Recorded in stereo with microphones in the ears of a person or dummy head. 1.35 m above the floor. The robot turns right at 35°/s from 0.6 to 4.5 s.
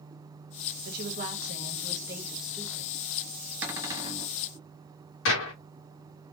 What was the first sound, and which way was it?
A woman speaking, 60° right.